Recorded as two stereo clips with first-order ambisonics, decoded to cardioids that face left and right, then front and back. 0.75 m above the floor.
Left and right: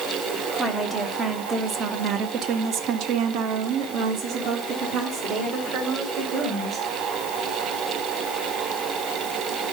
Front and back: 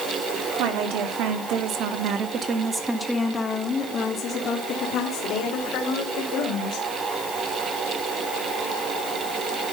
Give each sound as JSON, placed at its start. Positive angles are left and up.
{"t": 0.6, "sound": "a woman speaking", "azimuth_deg": -170, "distance_m": 1.9}